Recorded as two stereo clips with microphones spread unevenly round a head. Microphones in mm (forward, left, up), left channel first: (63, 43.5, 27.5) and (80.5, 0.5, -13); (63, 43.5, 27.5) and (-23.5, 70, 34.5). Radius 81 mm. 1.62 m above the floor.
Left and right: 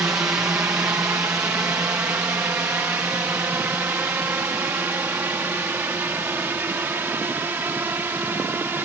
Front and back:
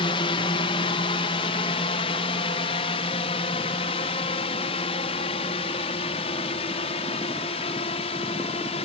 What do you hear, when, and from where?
0.0 s a drone: 35° right; by 8.9 s 30° right